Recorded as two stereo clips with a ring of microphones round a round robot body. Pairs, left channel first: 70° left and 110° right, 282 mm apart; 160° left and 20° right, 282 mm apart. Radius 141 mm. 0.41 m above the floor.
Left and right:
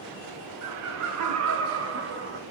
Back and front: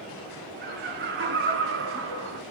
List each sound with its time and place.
0.6 s laughter: 80° right, 5 m; by 2.4 s 60° right, 3 m